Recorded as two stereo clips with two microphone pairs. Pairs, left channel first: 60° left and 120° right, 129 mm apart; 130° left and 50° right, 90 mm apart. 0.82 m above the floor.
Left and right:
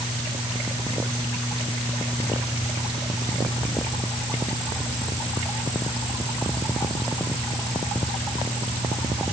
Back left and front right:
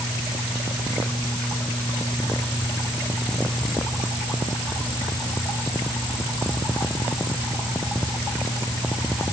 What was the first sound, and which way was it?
Only background noise.